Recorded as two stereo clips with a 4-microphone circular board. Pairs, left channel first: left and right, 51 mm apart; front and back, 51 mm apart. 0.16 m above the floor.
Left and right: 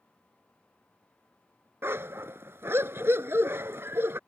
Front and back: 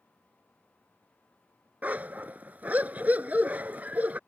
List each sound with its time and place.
1.8 s a dog barking: 125° right